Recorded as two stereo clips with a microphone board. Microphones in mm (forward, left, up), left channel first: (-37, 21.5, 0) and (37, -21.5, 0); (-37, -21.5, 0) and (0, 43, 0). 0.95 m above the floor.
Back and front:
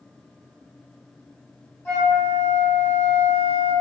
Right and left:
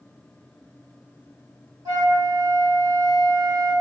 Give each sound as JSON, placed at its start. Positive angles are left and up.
{"t": 1.9, "sound": "a flute", "azimuth_deg": 85, "distance_m": 1.4}